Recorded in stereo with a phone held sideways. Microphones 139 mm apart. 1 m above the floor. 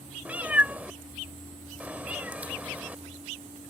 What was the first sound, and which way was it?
A cat meowing, 10° right (ahead or behind).